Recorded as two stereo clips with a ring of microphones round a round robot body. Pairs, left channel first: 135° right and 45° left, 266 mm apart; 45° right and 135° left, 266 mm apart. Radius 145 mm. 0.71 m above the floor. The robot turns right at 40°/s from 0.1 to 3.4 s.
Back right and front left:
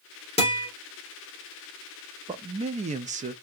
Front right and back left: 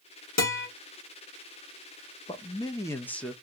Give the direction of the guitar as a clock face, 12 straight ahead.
2 o'clock.